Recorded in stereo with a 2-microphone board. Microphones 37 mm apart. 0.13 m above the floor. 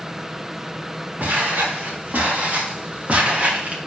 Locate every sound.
1.2 s footsteps: 55° right (ahead or behind), 4 m; by 3.8 s 35° right (ahead or behind), 2.5 m